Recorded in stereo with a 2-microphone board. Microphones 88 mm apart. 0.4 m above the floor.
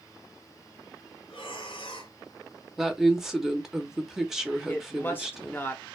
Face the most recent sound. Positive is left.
turn(degrees=20)  # may be behind; listen again after turning